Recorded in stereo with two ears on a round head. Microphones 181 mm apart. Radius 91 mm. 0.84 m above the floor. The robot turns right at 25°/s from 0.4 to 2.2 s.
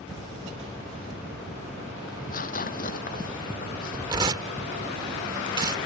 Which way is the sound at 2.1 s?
45° left (ahead or behind).